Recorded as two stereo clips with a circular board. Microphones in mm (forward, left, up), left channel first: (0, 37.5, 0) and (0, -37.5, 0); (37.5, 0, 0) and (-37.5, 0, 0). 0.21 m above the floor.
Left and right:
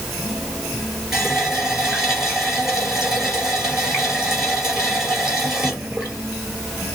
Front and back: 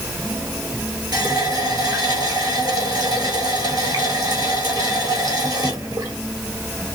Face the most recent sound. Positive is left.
turn(degrees=-175)